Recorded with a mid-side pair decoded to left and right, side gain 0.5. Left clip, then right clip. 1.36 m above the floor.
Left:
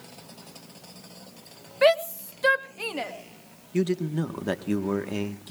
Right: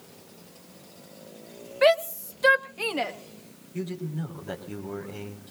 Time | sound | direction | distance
1.8 | a shout | 5° left | 1.3 m
3.7 | a man speaking | 70° left | 1.7 m